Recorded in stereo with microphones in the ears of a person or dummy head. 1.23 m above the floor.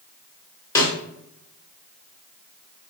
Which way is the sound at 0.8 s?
15° left (ahead or behind).